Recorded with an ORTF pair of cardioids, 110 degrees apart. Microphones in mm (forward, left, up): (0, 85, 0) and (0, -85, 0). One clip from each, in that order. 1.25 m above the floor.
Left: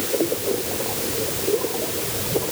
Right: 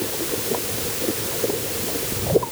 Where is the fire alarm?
No fire alarm in this recording.